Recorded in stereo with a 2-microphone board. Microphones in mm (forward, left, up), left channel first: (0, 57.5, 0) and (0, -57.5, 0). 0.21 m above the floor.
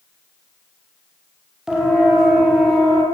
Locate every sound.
1.7 s a siren: 5° right (ahead or behind), 7 m